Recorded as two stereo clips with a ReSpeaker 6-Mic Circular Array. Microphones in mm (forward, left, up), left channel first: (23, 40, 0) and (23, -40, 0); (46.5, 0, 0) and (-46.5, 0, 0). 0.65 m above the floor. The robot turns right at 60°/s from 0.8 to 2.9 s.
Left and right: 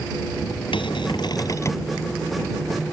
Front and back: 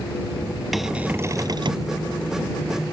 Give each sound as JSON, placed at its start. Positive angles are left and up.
{"t": 0.7, "sound": "a cupboard door", "azimuth_deg": 90}